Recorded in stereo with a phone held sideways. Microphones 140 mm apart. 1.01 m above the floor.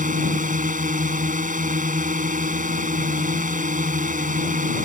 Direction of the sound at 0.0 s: 70° right (ahead or behind).